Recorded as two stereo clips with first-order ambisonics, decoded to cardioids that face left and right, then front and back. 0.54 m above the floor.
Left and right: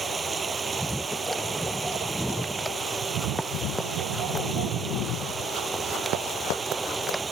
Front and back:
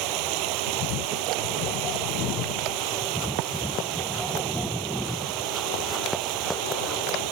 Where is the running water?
165° right.